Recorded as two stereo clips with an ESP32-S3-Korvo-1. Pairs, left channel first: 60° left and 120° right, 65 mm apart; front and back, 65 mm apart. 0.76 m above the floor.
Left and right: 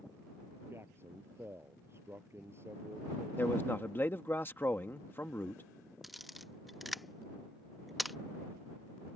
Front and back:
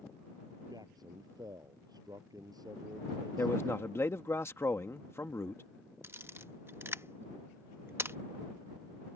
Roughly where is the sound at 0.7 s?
Behind.